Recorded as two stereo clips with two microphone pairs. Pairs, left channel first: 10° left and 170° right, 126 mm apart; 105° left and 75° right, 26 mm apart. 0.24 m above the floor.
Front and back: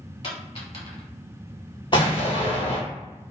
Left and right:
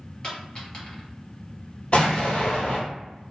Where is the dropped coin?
50° left, 1.8 m.